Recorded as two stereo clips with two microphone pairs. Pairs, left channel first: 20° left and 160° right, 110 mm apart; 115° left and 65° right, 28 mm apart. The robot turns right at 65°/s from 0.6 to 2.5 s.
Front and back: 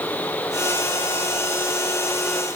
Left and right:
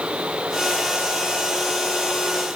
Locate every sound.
Only background noise.